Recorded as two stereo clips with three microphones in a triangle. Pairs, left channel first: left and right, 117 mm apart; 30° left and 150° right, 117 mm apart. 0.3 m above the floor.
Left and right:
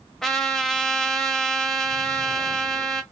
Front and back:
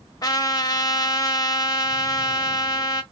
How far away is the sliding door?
No sliding door in this recording.